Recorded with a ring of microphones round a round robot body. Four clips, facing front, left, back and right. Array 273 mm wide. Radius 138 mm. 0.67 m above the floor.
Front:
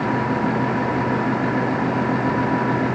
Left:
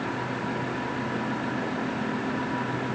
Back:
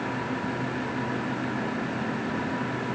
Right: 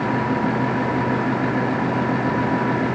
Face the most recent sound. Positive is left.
No sound to turn to.